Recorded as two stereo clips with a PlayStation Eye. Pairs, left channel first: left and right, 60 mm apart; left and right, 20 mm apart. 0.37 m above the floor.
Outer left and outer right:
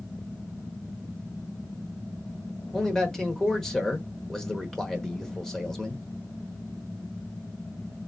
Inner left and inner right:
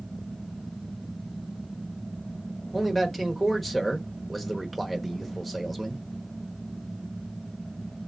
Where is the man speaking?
5° left (ahead or behind), 0.9 m.